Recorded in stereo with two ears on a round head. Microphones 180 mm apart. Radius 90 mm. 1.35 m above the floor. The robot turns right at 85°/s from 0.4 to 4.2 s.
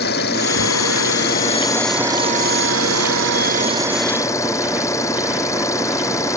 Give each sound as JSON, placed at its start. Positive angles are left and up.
{"t": 0.0, "sound": "an engine running", "azimuth_deg": 50}